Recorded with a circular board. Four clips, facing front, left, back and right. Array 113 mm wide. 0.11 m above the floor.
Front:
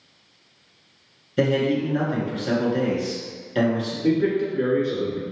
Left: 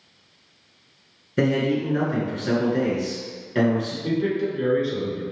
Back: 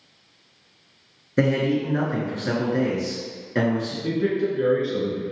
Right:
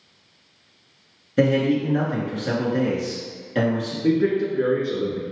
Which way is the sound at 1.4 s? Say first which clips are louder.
Right 2 dB, even; 175° left.